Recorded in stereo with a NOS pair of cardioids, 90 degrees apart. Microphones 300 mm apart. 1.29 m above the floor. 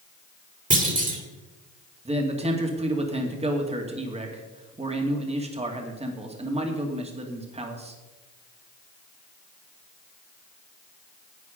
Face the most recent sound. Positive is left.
turn(degrees=-20)